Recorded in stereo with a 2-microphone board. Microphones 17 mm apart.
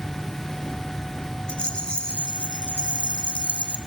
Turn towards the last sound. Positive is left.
turn(degrees=60)  # may be behind; listen again after turning